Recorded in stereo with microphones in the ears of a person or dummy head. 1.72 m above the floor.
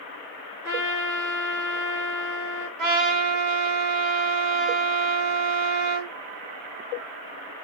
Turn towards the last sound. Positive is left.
turn(degrees=-55)  # may be behind; listen again after turning